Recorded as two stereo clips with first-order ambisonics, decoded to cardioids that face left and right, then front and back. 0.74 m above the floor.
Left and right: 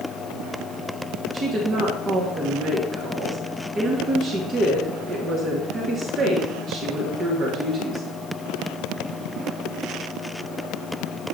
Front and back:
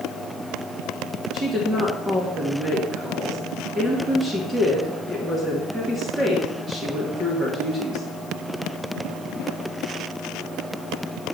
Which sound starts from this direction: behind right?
A woman speaking, at 1.3 s.